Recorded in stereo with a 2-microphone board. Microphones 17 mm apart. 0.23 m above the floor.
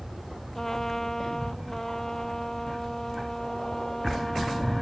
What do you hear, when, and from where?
0.6 s a trumpet: 30° left (ahead or behind)